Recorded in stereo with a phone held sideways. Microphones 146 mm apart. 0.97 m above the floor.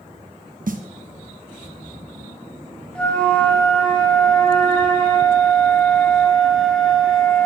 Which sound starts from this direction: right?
A snare drum, at 0.7 s.